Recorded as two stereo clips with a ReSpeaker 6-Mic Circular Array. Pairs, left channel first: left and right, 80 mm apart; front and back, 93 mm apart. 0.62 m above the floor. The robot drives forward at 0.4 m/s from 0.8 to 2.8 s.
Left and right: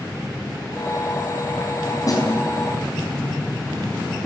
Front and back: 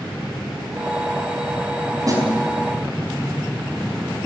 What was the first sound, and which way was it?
A snare drum, 130° left.